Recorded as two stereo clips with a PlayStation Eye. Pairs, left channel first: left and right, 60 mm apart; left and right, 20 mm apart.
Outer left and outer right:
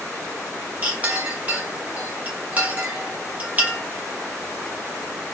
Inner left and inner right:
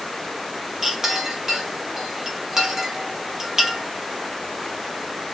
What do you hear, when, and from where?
0.8 s a clink: 25° right (ahead or behind), 1.2 m